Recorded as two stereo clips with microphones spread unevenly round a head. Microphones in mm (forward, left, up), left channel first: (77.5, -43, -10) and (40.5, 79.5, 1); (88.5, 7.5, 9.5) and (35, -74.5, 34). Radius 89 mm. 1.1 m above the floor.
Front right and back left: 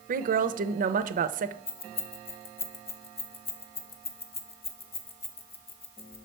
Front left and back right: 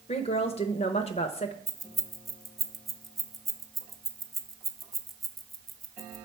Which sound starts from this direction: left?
A woman speaking, at 0.1 s.